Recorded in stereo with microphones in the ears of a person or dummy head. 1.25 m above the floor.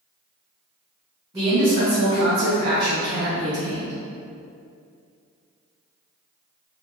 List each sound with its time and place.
1.3 s a man speaking: 20° right (ahead or behind), 0.8 m; by 4.0 s 35° right (ahead or behind), 1.3 m